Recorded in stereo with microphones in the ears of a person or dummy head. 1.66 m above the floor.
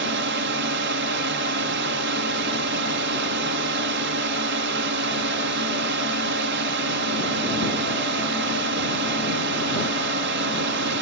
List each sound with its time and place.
0.0 s a drone: 55° right (ahead or behind)